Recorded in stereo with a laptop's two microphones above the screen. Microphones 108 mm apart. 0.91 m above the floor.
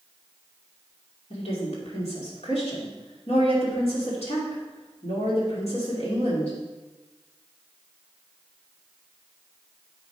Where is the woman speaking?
70° left (ahead or behind), 2.5 m.